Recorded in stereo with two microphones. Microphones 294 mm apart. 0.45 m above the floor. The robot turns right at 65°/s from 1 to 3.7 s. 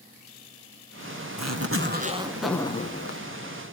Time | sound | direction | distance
1.4 | a zipper | 70° right | 1.0 m